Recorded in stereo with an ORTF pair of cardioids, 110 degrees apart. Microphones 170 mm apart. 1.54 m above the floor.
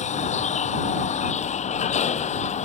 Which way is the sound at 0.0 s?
40° left.